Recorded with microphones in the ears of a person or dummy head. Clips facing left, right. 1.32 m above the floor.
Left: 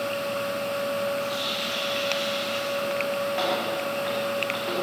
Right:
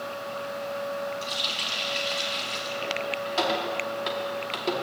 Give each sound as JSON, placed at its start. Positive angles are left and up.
{"t": 1.2, "sound": "a running tap", "side_deg": -55, "distance_m": 1.9}